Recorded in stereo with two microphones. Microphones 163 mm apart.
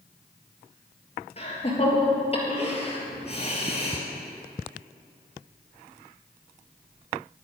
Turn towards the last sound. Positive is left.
turn(degrees=35)  # may be behind; listen again after turning